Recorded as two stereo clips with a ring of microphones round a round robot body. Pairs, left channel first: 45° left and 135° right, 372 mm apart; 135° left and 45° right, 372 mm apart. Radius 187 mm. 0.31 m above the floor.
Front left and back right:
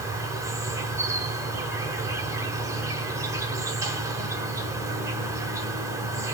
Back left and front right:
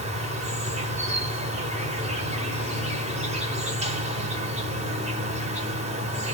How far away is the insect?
About 1.5 m.